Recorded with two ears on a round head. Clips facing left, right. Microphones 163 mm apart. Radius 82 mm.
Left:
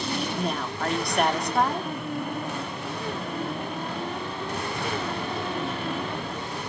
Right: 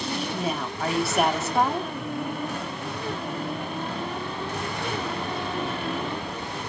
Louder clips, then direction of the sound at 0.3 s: Even; 5° right (ahead or behind).